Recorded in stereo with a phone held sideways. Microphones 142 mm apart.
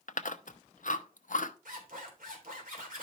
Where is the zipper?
75° right (ahead or behind), 3 m.